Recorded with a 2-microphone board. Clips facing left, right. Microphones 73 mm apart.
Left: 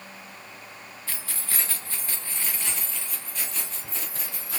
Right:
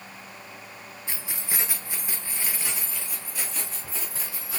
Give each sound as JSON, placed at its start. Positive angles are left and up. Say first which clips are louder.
{"t": 1.1, "sound": "keys jangling", "louder": "right 1 dB", "side_deg": -20, "distance_m": 0.8}